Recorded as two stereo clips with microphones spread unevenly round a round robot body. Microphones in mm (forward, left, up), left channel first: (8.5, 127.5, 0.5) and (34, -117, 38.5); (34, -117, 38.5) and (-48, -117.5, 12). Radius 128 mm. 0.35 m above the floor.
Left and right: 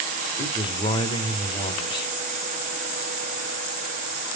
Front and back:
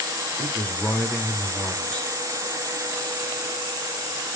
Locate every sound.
0.4 s a man speaking: 100° left, 1.2 m